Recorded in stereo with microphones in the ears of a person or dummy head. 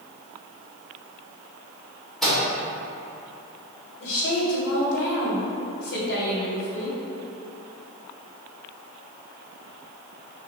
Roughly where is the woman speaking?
Left.